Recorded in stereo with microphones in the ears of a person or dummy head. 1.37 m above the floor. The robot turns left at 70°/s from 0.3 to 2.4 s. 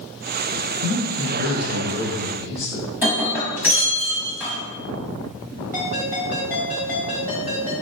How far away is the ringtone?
About 1.8 m.